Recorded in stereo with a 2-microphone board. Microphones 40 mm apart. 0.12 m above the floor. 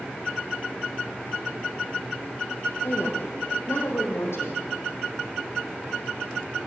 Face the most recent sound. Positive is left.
turn(degrees=70)  # may be behind; listen again after turning